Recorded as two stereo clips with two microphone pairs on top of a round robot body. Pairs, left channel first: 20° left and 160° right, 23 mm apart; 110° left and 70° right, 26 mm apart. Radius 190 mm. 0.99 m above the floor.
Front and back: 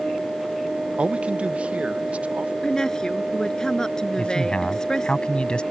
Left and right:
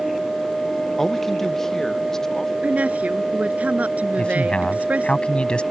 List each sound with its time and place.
1.0 s a man speaking: 165° right; by 2.5 s 175° right
2.6 s a woman speaking: 45° right
4.2 s a man speaking: 65° left